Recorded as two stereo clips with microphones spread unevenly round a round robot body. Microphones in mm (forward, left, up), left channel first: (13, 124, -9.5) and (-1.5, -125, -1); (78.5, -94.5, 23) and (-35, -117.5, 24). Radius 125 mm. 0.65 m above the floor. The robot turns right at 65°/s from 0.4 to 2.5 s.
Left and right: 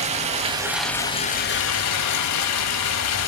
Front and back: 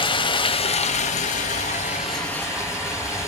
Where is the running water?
30° right, 1.0 m; by 3.3 s 105° left, 1.0 m.